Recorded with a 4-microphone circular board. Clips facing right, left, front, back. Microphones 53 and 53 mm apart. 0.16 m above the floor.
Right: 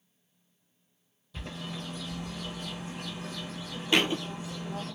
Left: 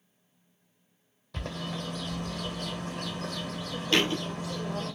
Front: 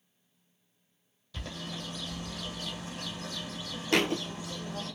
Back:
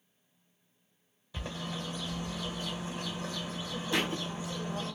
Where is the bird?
110° left, 1.0 m.